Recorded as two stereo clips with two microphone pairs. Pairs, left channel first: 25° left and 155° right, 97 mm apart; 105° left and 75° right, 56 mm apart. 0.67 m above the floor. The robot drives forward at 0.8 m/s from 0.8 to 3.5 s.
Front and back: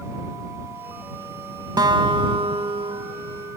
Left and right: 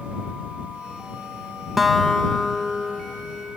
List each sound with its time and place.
1.8 s a guitar: 155° right, 0.6 m; by 3.6 s 175° right, 1.8 m